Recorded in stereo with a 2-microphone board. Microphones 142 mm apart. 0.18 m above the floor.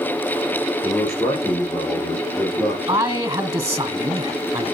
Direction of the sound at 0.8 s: Centre (ahead or behind).